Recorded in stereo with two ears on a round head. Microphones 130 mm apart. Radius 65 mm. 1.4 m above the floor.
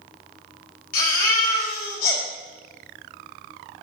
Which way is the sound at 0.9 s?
65° left (ahead or behind).